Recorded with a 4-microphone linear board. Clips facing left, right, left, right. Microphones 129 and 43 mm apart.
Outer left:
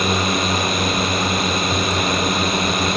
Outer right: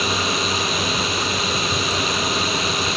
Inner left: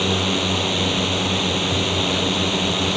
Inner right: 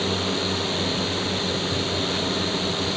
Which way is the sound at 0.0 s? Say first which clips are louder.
Outer left 3 dB, inner left 4 dB; 55° left (ahead or behind).